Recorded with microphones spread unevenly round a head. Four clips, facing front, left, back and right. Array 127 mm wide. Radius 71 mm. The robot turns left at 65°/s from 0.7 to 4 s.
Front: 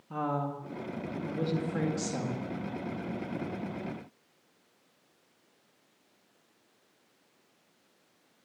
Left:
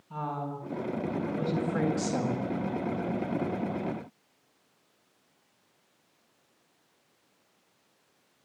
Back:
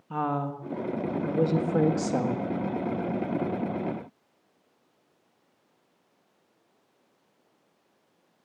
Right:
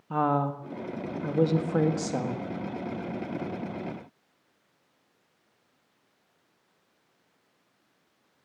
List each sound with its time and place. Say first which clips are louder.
0.1 s a woman speaking: right 9 dB, back 3 dB; 85° right, 1.7 m; by 2.5 s 160° left, 1.7 m